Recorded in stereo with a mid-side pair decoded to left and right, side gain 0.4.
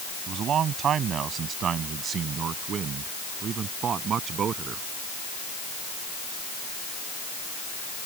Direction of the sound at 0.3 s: 65° right.